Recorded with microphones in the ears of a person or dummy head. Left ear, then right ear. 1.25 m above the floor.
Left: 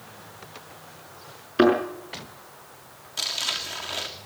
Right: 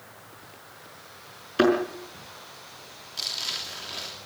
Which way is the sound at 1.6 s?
5° right (ahead or behind).